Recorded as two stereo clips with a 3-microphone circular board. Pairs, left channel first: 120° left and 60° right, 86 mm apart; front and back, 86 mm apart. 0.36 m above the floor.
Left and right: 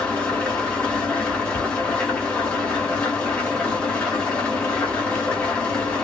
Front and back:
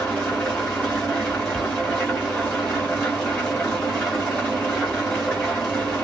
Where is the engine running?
60° left, 1.4 m.